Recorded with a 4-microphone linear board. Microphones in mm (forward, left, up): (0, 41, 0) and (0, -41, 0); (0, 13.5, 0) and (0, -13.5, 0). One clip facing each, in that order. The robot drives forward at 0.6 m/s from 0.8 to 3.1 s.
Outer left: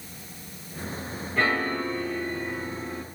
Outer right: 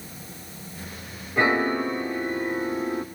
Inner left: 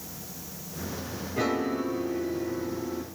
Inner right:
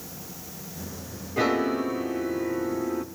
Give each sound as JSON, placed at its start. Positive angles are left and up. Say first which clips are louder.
{"t": 1.4, "sound": "a piano", "louder": "outer right 4 dB, inner right 4 dB", "side_deg": -15, "distance_m": 1.7}